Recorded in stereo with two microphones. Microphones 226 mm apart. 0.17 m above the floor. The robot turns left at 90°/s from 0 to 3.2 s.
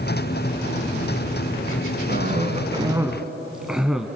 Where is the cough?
75° right, 1.4 m; by 4.1 s 175° right, 1.4 m.